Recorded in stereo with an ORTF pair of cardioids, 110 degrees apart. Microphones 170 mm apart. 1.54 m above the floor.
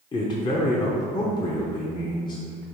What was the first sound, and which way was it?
A man speaking, 25° left.